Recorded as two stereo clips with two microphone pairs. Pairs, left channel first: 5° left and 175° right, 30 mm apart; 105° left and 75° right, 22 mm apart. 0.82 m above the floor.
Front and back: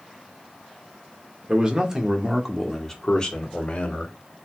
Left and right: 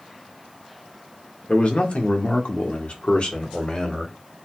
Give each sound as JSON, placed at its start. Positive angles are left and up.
{"t": 1.5, "sound": "a man speaking", "azimuth_deg": 125, "distance_m": 1.8}